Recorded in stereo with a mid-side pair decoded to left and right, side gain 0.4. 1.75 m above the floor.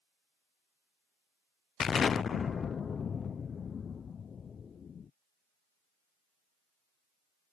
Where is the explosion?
50° left.